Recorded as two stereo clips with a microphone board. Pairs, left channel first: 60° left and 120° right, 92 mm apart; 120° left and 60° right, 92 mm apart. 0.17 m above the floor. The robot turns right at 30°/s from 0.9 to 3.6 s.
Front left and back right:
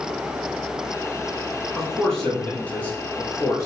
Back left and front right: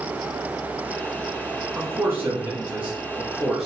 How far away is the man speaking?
About 1.4 m.